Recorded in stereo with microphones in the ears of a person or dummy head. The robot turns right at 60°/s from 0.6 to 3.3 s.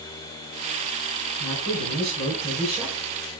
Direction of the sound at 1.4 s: 95° right.